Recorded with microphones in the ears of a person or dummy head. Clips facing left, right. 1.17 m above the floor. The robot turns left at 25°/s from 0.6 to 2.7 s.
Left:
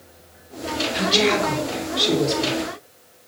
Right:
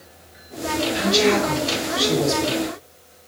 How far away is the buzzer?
I don't hear a buzzer.